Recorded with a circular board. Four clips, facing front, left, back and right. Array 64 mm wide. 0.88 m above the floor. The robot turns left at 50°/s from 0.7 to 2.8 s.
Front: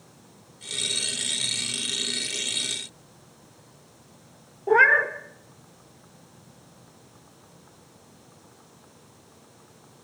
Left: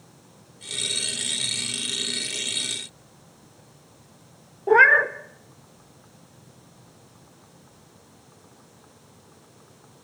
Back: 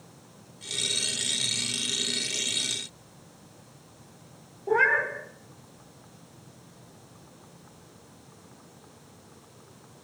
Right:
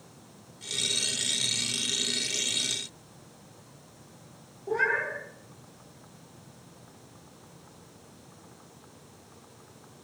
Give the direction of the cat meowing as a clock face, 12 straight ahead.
10 o'clock.